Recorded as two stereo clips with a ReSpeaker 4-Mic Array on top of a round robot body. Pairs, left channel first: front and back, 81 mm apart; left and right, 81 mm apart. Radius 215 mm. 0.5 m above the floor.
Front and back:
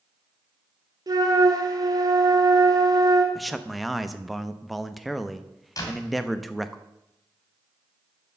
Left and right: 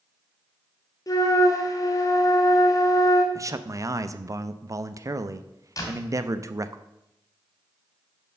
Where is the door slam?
40° left, 2.5 m.